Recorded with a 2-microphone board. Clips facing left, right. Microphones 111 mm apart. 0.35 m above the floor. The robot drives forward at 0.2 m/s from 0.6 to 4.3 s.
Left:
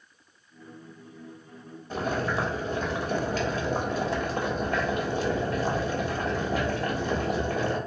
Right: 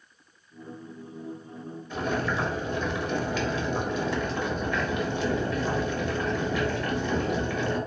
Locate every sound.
1.9 s boiling: 40° left (ahead or behind), 0.9 m